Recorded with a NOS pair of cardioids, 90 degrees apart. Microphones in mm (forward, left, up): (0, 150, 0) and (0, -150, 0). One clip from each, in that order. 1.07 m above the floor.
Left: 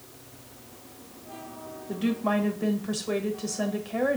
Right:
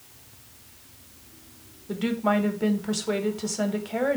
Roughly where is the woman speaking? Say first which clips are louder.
Right 3 dB; ahead.